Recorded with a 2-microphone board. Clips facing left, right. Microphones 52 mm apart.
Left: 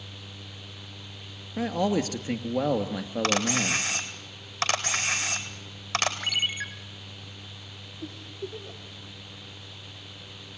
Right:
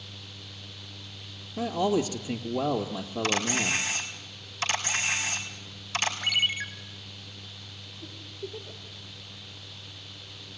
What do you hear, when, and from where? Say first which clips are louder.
1.6 s a man speaking: even; 50° left (ahead or behind), 2 m
3.2 s a camera shutter: left 1 dB; 60° left (ahead or behind), 3.5 m
6.2 s a ringtone: right 2 dB; 10° left (ahead or behind), 1.9 m
8.0 s a giggle: left 3 dB; 80° left, 6 m